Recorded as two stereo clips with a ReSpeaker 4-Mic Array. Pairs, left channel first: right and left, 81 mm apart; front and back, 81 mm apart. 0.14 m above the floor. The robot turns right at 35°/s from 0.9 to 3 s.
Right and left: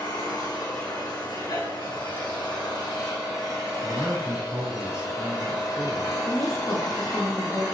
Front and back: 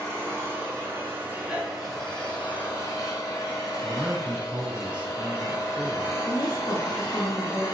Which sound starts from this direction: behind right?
An engine running, at 0.0 s.